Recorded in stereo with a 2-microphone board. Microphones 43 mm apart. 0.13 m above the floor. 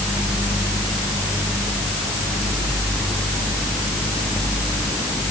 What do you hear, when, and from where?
Only background noise.